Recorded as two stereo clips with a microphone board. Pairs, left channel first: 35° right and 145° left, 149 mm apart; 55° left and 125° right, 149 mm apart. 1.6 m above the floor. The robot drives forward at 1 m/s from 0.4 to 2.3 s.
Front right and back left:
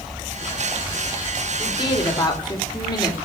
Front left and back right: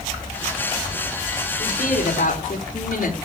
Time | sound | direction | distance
1.6 | a woman speaking | 25° left | 5 m